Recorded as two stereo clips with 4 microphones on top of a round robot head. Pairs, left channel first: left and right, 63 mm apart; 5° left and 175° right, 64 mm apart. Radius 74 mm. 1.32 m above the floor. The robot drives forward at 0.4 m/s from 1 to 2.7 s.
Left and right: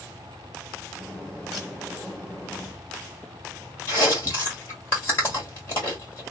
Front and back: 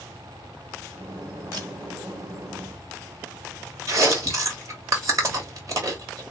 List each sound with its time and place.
1.5 s a camera shutter: 175° left, 2 m
3.9 s chewing: 150° left, 2 m